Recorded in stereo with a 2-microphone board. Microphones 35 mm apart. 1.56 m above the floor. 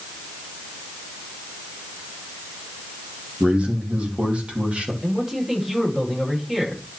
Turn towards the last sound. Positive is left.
turn(degrees=-20)  # may be behind; listen again after turning